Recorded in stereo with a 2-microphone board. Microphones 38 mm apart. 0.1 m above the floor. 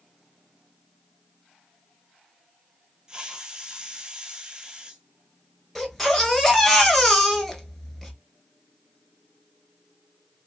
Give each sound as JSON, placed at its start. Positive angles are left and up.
{"t": 3.1, "sound": "a hiss", "side_deg": -20, "distance_m": 0.7}
{"t": 5.8, "sound": "a baby crying", "side_deg": 5, "distance_m": 0.8}